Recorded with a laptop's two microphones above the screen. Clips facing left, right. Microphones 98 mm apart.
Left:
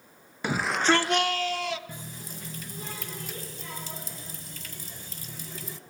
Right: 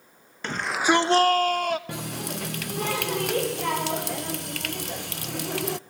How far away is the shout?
About 1.1 m.